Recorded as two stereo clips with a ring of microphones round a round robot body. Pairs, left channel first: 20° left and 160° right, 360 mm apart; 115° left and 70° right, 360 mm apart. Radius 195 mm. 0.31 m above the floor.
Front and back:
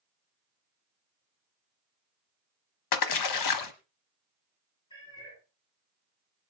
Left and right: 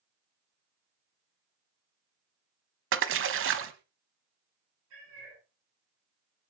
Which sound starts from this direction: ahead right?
A cat meowing, at 4.9 s.